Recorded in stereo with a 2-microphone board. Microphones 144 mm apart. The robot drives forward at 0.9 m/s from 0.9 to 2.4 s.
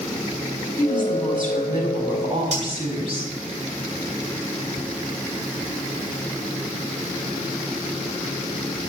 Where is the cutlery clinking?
55° right (ahead or behind), 2 m.